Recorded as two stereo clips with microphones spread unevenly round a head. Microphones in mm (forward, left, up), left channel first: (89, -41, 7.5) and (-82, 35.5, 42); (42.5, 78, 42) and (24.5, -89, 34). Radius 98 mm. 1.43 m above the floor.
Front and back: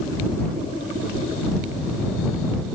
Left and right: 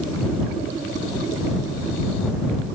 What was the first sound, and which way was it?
Only background noise.